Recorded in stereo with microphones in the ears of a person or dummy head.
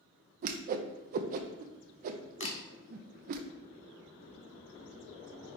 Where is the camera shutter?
30° left (ahead or behind), 0.9 m.